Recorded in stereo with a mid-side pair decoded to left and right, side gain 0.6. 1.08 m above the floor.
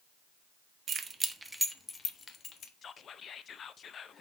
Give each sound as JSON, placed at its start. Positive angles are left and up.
{"t": 0.9, "sound": "keys jangling", "azimuth_deg": -40, "distance_m": 0.8}
{"t": 2.8, "sound": "whispering", "azimuth_deg": 40, "distance_m": 0.7}